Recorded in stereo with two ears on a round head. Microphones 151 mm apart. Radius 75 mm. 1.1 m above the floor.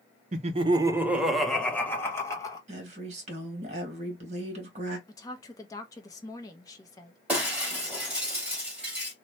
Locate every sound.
0.3 s laughter: 45° right (ahead or behind), 0.5 m; by 2.6 s 20° left (ahead or behind), 1.2 m
2.7 s a woman speaking: 40° right (ahead or behind), 1.5 m
5.1 s a woman speaking: 20° left (ahead or behind), 0.8 m
7.3 s breaking glass: 5° right (ahead or behind), 2 m